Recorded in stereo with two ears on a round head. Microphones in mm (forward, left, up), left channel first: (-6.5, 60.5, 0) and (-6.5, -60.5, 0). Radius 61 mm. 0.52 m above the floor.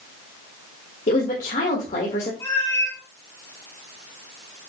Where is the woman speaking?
55° left (ahead or behind), 1.7 m.